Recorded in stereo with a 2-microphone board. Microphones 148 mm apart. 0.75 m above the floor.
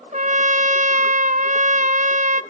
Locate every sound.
0.1 s a trumpet: 60° right (ahead or behind), 0.9 m